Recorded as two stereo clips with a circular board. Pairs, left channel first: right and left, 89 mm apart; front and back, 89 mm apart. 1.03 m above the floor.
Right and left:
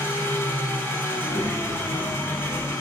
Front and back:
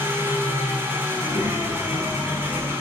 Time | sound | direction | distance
0.0 | an engine running | 130° right | 0.8 m
1.1 | a child speaking | 120° right | 1.4 m